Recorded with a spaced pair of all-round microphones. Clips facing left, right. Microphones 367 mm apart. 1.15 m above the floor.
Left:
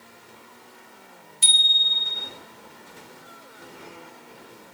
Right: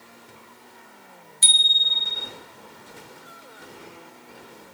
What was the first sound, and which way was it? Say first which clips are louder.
A bicycle bell: even; 40° left (ahead or behind).